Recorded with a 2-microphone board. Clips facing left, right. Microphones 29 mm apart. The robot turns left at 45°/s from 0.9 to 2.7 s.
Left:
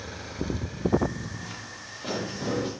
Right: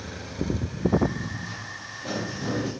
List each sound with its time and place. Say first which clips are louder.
1.3 s footsteps: right 3 dB; 80° left, 5 m; by 2.7 s 50° left (ahead or behind), 6 m